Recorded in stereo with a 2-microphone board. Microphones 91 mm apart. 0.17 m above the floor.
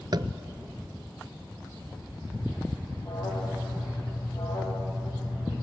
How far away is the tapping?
About 0.6 m.